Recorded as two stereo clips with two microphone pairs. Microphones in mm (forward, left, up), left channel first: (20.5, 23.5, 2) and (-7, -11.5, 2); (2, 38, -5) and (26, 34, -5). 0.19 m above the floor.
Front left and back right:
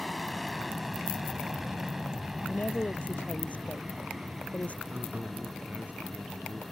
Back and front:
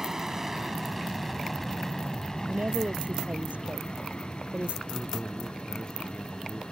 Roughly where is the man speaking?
Behind right.